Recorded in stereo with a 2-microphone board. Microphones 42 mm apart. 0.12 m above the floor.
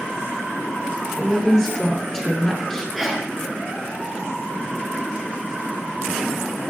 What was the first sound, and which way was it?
A woman speaking, 10° left (ahead or behind).